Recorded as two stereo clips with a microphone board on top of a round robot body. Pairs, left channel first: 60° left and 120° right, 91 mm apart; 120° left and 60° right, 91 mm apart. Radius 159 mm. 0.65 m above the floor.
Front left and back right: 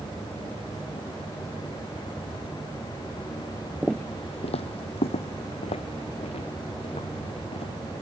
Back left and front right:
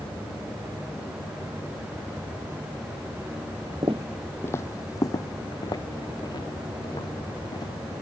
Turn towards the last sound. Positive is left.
turn(degrees=75)